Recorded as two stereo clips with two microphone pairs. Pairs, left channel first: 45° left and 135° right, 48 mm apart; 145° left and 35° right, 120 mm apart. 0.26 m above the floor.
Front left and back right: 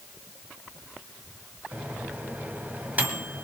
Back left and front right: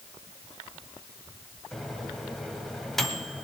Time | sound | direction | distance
1.7 | a microwave | 130° right | 1.5 m